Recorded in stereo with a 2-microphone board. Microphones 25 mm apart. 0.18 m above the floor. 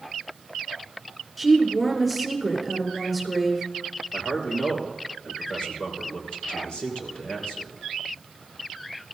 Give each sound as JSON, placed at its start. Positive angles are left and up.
{"t": 1.4, "sound": "a woman speaking", "side_deg": 0, "distance_m": 4.0}
{"t": 4.1, "sound": "a man speaking", "side_deg": 55, "distance_m": 4.0}